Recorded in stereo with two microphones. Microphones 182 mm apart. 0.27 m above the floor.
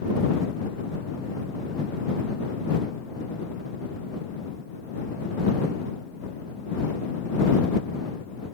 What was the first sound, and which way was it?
Only background noise.